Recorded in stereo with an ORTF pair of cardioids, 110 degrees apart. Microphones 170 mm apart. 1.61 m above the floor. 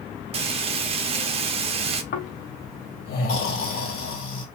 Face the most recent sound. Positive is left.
turn(degrees=65)